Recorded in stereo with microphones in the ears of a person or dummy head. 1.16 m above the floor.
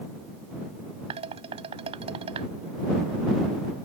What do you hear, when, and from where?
1.1 s dishes clattering: 35° right (ahead or behind)